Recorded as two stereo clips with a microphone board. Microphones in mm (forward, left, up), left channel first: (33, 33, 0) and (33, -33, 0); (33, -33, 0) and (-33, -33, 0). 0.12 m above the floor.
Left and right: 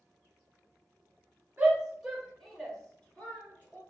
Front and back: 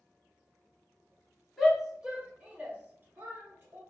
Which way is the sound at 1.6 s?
90° right.